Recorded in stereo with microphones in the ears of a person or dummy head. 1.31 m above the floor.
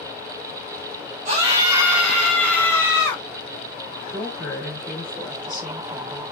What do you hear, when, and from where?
1.2 s a scream: 35° right (ahead or behind), 1.1 m; by 3.2 s 15° left (ahead or behind), 2.5 m
4.1 s a woman speaking: 5° right (ahead or behind), 2.5 m